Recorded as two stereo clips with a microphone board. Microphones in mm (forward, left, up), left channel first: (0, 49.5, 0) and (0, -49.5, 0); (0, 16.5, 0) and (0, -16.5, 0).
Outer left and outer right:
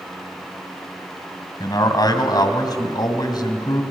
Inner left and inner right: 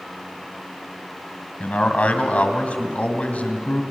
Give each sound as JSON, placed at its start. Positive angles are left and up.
{"t": 1.6, "sound": "a man speaking", "side_deg": 45, "distance_m": 2.0}